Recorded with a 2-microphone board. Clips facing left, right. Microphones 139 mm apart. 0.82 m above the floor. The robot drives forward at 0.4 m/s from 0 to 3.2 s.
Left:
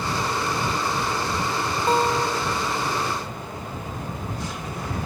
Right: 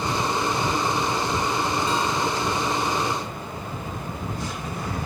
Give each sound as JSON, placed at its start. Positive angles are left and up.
{"t": 1.9, "sound": "a guitar", "side_deg": 60}